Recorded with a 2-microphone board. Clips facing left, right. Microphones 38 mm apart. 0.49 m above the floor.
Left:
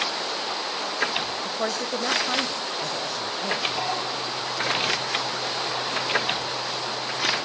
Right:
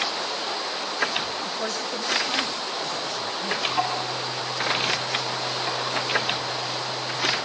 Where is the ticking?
15° right (ahead or behind), 7 m.